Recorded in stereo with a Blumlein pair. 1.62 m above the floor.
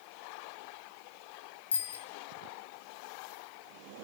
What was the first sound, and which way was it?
A bicycle bell, 65° left.